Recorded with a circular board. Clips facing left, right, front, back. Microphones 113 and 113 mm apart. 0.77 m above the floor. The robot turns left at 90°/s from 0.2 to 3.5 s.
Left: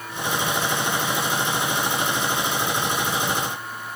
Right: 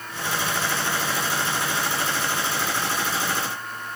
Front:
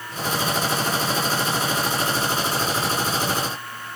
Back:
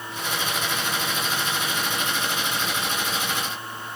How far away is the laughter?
I don't hear laughter.